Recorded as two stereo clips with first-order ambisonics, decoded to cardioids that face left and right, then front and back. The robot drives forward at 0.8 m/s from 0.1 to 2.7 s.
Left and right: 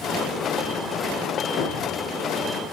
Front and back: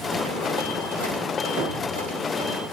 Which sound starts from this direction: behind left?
A thud, at 1.6 s.